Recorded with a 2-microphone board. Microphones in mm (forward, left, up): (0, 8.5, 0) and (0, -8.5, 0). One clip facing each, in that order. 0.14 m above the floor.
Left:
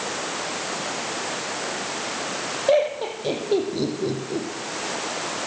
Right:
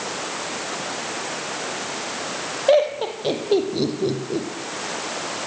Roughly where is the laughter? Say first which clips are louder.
Right 3 dB; right.